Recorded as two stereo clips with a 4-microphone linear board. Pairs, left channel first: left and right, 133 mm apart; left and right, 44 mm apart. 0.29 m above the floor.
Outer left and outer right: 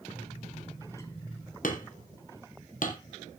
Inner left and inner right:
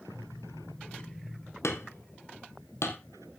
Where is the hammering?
80° left, 2.5 m.